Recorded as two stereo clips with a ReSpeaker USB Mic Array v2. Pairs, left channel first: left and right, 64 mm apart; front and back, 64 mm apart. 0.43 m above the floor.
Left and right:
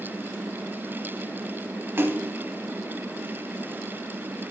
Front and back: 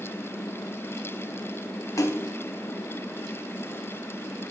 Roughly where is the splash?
Ahead right.